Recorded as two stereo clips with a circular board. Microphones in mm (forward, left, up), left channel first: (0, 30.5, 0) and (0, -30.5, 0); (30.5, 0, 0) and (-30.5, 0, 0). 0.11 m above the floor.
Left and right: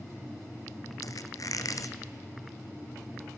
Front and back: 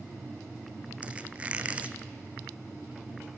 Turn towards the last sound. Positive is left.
turn(degrees=110)